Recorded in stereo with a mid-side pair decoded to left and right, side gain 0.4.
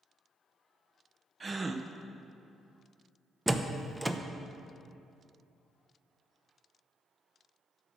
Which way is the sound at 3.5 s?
10° right.